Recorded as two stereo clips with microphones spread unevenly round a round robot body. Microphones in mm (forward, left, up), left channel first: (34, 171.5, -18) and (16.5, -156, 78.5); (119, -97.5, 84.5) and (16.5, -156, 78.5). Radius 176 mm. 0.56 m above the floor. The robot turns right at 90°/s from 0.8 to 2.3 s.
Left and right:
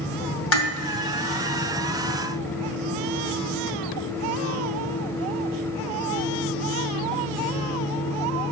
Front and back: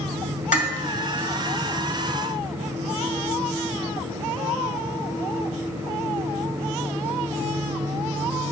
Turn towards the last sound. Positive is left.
turn(degrees=180)